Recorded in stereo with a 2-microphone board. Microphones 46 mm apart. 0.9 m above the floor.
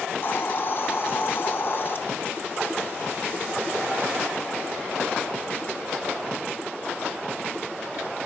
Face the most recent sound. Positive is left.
turn(degrees=50)  # may be behind; listen again after turning